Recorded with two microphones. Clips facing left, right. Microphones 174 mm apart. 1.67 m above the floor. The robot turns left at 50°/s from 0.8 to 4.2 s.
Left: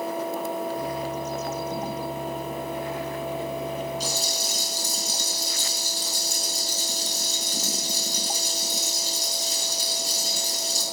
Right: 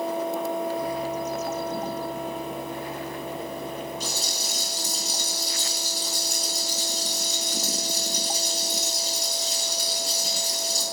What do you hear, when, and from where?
4.0 s a rattle: 55° right (ahead or behind), 5 m; by 10.8 s 65° right (ahead or behind), 5 m